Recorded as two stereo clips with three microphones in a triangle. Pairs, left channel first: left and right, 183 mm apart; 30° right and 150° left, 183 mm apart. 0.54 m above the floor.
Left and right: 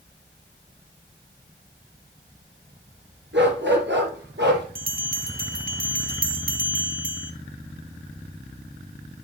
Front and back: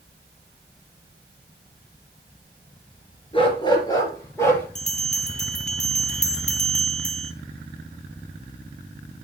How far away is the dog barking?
About 3.5 m.